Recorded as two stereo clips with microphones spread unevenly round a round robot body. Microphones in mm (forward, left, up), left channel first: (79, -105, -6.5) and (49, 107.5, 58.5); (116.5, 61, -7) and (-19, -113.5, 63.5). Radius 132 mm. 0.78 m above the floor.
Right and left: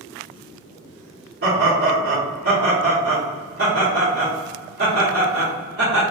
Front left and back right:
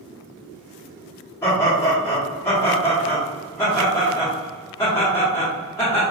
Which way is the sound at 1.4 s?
70° left.